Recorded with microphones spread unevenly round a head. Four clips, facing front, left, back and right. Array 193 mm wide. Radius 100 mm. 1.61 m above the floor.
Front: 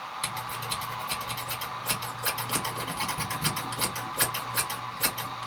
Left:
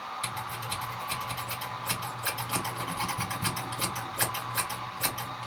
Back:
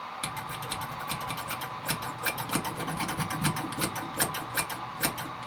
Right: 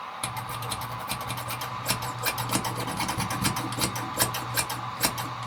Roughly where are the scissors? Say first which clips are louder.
Right 2 dB, front 3 dB; right.